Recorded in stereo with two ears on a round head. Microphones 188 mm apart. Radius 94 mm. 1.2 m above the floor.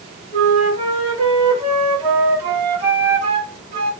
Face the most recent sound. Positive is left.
turn(degrees=-30)  # may be behind; listen again after turning